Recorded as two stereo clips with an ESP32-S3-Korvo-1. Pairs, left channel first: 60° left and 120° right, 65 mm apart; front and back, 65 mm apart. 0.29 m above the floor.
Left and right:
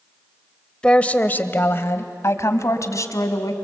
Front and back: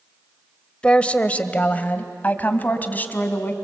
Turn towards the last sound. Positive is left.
turn(degrees=55)